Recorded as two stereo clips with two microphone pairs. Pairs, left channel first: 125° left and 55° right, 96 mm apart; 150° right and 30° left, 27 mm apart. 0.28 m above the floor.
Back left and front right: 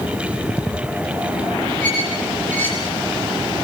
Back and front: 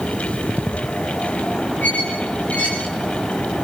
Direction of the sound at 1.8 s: 160° right.